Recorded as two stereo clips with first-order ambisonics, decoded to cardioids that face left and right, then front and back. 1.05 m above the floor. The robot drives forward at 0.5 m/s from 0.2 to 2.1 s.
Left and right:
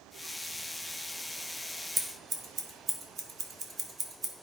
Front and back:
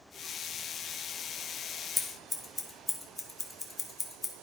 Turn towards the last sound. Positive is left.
turn(degrees=-60)